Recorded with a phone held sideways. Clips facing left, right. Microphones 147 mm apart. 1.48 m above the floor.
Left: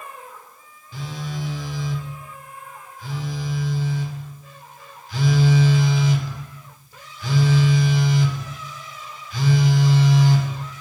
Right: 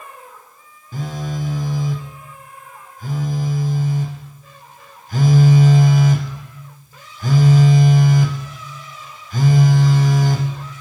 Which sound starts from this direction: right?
A phone buzzing, at 0.9 s.